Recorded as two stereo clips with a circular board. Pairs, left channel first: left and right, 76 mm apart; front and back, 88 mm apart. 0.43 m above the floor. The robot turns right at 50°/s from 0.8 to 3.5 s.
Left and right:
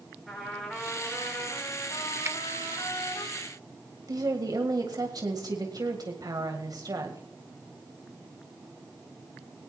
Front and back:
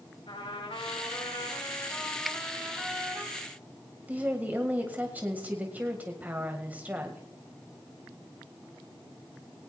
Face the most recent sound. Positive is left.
turn(degrees=-110)